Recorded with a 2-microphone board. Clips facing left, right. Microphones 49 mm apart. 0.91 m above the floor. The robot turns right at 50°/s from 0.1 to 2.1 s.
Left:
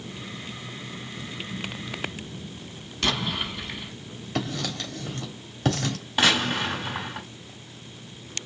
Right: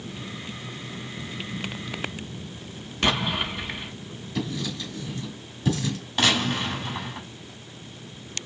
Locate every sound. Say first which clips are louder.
3.0 s an explosion: right 3 dB; 25° right (ahead or behind), 1.0 m
4.3 s writing: left 1 dB; 60° left (ahead or behind), 1.5 m
6.2 s a gunshot: left 1 dB; 15° left (ahead or behind), 3 m